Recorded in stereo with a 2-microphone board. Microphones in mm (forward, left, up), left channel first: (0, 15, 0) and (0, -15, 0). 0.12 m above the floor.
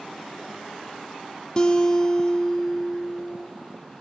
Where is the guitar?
30° left (ahead or behind), 1.5 m.